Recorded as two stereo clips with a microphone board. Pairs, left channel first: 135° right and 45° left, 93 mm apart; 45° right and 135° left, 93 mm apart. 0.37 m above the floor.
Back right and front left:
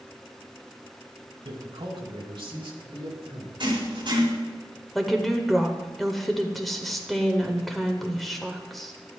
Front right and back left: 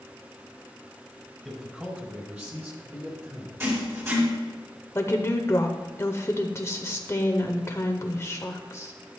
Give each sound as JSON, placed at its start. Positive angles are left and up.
{"t": 1.4, "sound": "a man speaking", "azimuth_deg": 50, "distance_m": 2.5}
{"t": 3.6, "sound": "writing", "azimuth_deg": 75, "distance_m": 4.0}
{"t": 5.0, "sound": "a woman speaking", "azimuth_deg": -45, "distance_m": 0.9}